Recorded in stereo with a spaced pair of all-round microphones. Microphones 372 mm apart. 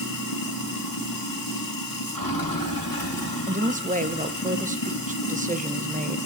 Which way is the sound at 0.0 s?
65° left (ahead or behind).